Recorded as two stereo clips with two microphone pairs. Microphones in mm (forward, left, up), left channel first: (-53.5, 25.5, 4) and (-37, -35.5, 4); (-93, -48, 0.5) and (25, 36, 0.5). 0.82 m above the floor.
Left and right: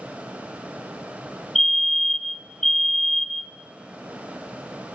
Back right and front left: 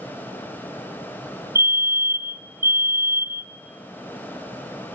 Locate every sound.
1.6 s a fire alarm: 30° left, 1.3 m